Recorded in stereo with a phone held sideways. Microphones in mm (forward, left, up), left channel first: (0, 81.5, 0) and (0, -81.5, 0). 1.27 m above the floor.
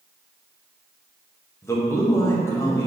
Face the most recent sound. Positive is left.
turn(degrees=15)  # may be behind; listen again after turning